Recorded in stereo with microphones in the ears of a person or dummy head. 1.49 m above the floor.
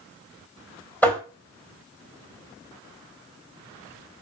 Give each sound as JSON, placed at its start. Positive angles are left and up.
{"t": 1.0, "sound": "tapping", "side_deg": 10, "distance_m": 2.0}